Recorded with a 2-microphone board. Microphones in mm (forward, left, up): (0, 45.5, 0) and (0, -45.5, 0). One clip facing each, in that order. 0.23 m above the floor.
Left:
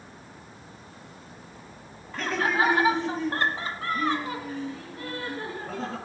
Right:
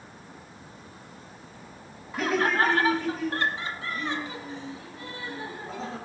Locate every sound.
2.1 s laughter: 10° right (ahead or behind), 1.1 m; by 6.0 s 55° left (ahead or behind), 3 m